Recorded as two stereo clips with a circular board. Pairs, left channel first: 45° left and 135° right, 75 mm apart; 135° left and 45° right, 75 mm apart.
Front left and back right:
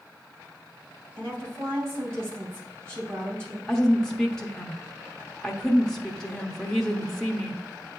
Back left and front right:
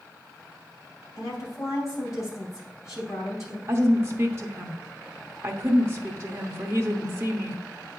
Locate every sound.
1.1 s a woman speaking: 175° left, 3 m
3.7 s a woman speaking: 30° right, 0.8 m